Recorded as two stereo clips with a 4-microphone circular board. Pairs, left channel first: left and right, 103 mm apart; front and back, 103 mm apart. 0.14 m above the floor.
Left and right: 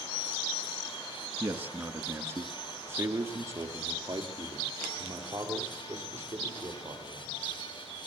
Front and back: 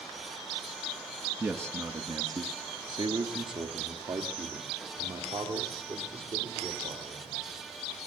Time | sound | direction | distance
1.4 | a man speaking | 140° right | 1.5 m